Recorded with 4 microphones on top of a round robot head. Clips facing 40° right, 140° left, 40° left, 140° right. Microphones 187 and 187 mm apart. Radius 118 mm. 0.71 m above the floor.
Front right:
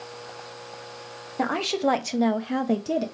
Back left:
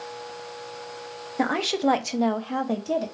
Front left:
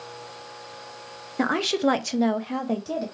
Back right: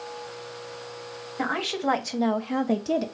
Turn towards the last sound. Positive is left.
turn(degrees=-95)